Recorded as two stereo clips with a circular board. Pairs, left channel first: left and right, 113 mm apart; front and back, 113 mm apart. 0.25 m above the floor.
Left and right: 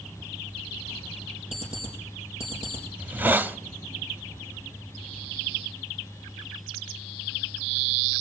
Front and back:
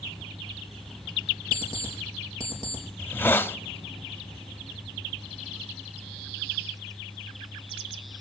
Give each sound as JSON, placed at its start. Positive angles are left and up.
{"t": 1.5, "sound": "an alarm clock", "azimuth_deg": -125, "distance_m": 5.0}
{"t": 3.0, "sound": "a hiss", "azimuth_deg": -40, "distance_m": 0.5}